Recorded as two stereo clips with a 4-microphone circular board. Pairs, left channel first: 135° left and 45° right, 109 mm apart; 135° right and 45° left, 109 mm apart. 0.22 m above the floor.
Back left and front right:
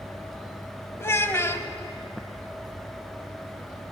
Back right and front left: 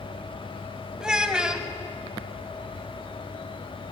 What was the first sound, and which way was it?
A child speaking, 120° left.